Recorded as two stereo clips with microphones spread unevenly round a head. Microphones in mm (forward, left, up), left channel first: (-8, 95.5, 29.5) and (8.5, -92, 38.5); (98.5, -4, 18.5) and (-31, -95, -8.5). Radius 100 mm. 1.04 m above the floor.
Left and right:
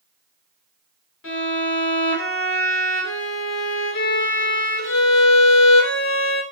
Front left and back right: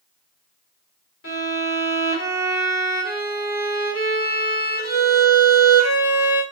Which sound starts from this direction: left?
A violin, at 1.2 s.